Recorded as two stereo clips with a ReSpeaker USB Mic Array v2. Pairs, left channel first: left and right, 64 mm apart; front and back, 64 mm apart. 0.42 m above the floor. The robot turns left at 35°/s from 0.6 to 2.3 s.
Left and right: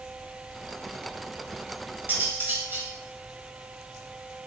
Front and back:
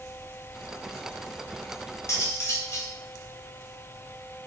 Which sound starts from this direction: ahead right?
Cutlery clinking, at 2.1 s.